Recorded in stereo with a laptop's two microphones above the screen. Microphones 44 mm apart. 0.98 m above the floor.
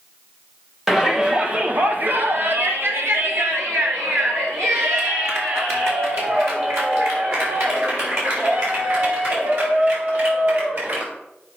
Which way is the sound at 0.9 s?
10° right (ahead or behind).